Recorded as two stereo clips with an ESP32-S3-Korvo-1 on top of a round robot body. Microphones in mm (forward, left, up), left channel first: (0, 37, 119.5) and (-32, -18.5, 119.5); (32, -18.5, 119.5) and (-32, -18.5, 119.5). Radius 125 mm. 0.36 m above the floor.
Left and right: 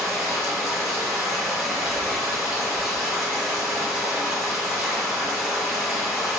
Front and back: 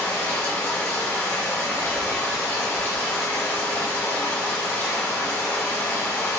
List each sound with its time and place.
0.0 s running water: 40° right, 1.9 m